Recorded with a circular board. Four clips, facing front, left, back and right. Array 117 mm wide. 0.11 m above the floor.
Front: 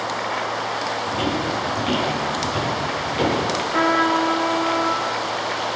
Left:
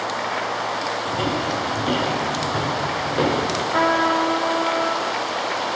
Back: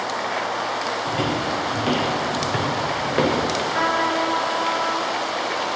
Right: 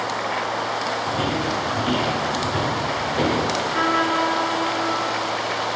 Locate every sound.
1.1 s footsteps: 165° right, 3.5 m; by 3.5 s 175° left, 3.5 m
3.7 s a trumpet: 65° left, 1.8 m